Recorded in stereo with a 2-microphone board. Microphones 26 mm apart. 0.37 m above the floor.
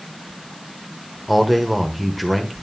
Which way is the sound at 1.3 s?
5° right (ahead or behind).